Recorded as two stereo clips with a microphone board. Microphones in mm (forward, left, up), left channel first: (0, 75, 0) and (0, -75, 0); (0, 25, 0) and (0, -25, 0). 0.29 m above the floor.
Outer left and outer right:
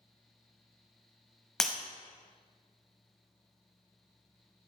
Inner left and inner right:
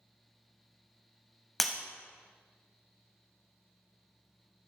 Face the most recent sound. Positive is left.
turn(degrees=5)  # may be behind; listen again after turning